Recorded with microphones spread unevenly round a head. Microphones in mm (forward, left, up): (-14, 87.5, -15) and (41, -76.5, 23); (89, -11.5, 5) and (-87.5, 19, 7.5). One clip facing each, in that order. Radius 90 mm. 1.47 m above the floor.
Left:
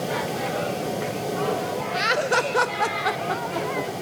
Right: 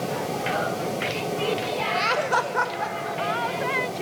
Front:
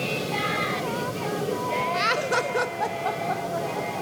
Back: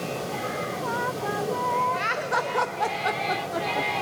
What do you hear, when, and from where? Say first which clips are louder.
1.9 s laughter: left 3 dB, front 3 dB; 25° left, 0.8 m; by 3.9 s 135° left, 1.0 m